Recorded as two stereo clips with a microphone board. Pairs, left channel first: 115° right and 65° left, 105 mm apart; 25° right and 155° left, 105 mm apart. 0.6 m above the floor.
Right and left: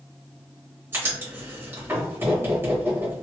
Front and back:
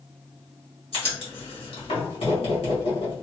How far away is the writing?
About 1.9 m.